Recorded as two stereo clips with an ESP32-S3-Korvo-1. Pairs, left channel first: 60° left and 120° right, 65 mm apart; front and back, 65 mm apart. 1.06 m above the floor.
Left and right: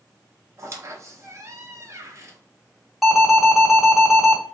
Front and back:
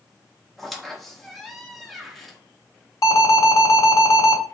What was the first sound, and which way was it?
A squeak, 90° right.